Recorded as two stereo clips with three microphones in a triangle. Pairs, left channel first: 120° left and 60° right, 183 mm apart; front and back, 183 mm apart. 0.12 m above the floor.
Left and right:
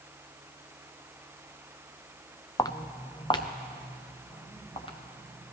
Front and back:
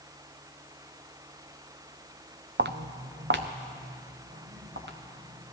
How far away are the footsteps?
About 0.6 m.